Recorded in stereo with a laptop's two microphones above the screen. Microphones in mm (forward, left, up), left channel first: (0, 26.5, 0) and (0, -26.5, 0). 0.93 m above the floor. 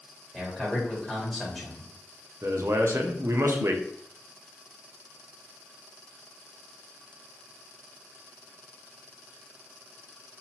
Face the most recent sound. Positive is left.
turn(degrees=-60)  # may be behind; listen again after turning